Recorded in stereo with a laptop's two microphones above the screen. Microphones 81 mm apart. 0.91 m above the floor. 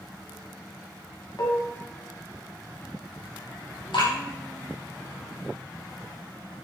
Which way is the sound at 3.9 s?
75° left (ahead or behind).